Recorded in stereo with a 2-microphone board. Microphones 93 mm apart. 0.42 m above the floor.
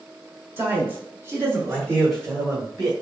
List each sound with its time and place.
0.6 s a man speaking: 25° right (ahead or behind), 1.2 m; by 2.9 s 20° right (ahead or behind), 1.3 m